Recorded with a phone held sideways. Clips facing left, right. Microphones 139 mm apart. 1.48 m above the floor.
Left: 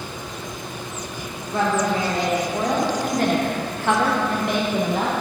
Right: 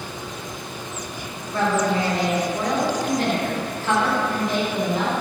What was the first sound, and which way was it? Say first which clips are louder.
A woman speaking: even; 25° left (ahead or behind).